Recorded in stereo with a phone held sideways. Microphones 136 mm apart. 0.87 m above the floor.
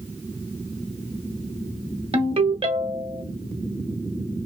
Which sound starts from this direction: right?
A ringtone, at 2.1 s.